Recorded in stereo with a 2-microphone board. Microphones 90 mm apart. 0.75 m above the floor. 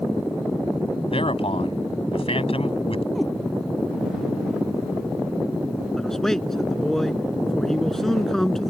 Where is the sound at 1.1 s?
75° left (ahead or behind).